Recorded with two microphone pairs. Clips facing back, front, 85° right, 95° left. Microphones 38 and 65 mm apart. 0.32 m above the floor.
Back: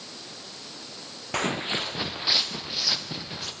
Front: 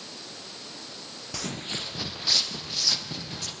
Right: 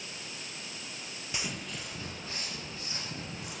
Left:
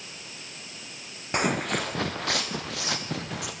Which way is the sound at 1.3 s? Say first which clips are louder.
Back 7 dB, left 14 dB; 135° left.